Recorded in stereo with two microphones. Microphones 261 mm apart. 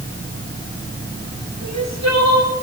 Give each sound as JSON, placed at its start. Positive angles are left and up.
{"t": 1.6, "sound": "crying", "side_deg": -85, "distance_m": 4.5}